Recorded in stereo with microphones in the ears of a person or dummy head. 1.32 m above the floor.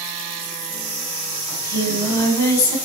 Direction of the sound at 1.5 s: 20° left (ahead or behind).